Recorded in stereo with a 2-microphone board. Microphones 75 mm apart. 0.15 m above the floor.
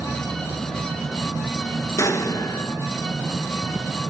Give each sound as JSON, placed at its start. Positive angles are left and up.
{"t": 2.0, "sound": "an explosion", "side_deg": 45, "distance_m": 0.6}